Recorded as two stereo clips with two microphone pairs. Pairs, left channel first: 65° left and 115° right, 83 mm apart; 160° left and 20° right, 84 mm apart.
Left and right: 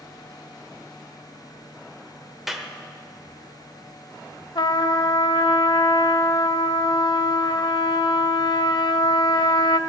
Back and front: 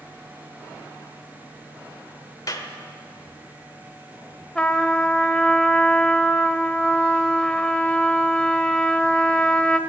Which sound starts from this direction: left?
A trumpet, at 4.5 s.